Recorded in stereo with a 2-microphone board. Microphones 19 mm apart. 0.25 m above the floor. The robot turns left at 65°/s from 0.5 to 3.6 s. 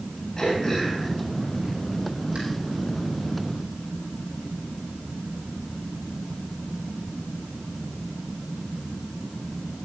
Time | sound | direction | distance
0.4 | throat clearing | 35° left (ahead or behind) | 10 m